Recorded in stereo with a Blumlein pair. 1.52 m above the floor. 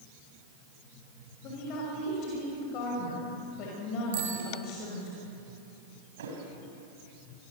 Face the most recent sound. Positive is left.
turn(degrees=-60)